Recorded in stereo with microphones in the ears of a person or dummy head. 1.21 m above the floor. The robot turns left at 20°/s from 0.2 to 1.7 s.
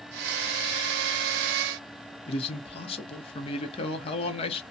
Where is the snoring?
I don't hear snoring.